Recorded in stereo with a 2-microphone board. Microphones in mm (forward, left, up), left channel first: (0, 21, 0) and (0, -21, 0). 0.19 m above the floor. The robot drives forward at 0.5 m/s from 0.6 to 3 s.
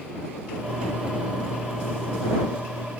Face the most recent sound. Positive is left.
No sound to turn to.